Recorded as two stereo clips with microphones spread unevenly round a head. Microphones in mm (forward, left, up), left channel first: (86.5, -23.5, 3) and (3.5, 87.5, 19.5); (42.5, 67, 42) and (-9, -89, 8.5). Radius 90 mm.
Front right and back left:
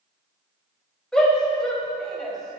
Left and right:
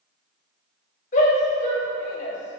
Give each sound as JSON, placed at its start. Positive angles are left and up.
{"t": 1.1, "sound": "a shout", "azimuth_deg": 30, "distance_m": 5.5}